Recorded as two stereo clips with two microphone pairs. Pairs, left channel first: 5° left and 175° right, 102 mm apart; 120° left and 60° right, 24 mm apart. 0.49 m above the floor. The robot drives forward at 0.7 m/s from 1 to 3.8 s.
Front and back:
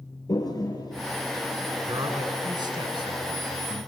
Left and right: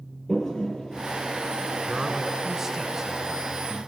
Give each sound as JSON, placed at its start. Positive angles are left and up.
{"t": 0.3, "sound": "a toilet flushing", "azimuth_deg": 55, "distance_m": 4.0}
{"t": 1.9, "sound": "a man speaking", "azimuth_deg": -135, "distance_m": 3.5}